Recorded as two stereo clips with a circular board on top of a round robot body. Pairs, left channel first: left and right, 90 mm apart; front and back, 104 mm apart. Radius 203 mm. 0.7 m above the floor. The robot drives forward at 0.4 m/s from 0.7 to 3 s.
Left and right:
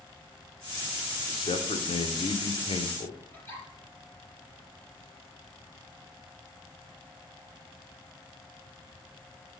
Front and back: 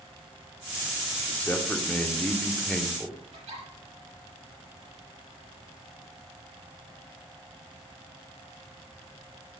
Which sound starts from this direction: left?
A man speaking, at 1.3 s.